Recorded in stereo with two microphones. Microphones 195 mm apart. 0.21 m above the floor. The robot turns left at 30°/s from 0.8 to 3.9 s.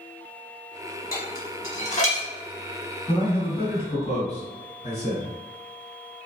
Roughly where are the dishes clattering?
Left.